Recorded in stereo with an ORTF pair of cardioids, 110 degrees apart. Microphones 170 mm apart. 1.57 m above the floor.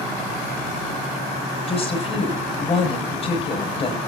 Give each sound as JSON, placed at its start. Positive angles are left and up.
{"t": 1.7, "sound": "a woman speaking", "azimuth_deg": 35, "distance_m": 8.5}